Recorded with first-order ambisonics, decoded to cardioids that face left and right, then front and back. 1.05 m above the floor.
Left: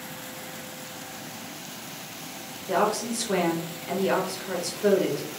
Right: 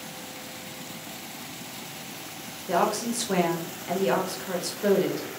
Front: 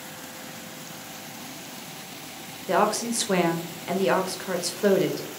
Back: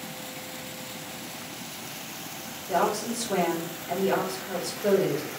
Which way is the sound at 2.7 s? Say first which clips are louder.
Even, front 3 dB; 5° right.